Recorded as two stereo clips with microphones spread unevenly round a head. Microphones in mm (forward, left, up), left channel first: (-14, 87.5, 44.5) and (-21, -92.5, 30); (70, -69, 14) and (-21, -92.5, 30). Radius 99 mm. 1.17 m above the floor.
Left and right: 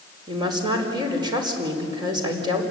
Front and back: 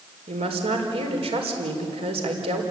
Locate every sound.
0.3 s a woman speaking: 160° right, 5 m